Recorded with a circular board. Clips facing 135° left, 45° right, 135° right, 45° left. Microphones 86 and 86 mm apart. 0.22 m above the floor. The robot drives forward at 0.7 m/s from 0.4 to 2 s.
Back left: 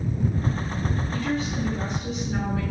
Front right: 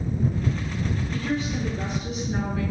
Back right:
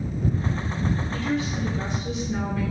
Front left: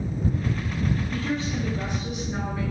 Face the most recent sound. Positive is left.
turn(degrees=115)